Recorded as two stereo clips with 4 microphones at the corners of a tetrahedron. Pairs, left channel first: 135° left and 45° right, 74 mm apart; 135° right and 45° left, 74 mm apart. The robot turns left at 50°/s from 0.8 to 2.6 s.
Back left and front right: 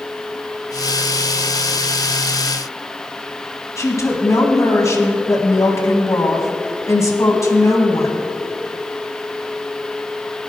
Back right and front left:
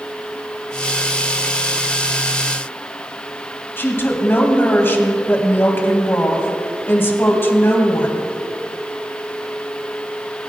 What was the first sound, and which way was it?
A woman speaking, 170° left.